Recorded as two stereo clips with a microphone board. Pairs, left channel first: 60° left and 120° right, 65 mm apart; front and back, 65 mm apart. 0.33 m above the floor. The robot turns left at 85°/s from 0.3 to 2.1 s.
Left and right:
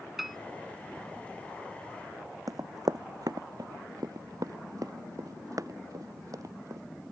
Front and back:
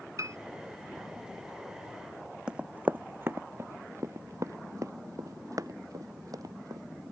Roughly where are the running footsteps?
Right.